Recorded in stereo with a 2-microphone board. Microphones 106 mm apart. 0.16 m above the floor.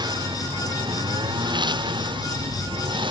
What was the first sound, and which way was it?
A lawn mower, 40° right (ahead or behind).